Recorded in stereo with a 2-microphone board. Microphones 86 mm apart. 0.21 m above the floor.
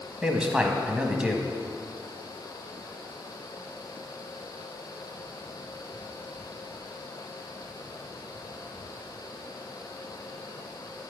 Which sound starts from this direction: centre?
A man speaking, at 0.2 s.